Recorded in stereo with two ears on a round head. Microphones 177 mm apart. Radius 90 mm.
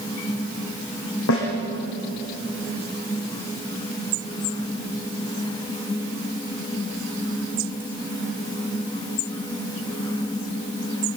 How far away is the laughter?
No laughter in this recording.